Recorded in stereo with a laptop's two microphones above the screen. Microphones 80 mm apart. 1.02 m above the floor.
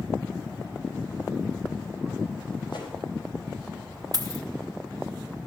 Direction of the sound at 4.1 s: 50° right (ahead or behind).